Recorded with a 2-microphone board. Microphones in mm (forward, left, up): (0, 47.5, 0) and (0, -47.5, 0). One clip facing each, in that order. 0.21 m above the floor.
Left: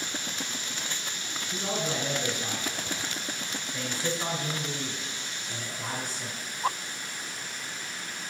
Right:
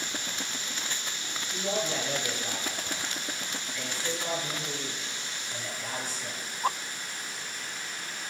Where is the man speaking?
45° left (ahead or behind), 2 m.